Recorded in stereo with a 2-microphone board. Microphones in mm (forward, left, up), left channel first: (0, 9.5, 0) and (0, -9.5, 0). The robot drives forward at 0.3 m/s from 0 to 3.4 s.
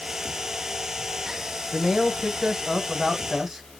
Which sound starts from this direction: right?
A man speaking, at 1.7 s.